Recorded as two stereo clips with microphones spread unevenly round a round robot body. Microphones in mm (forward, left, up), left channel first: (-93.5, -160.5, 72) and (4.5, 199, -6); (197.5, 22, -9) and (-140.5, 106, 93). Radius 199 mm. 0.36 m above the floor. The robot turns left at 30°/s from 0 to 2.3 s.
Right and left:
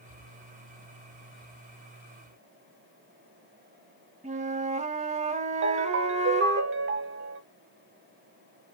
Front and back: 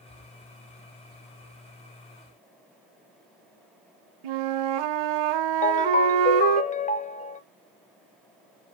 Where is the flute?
145° left, 0.5 m.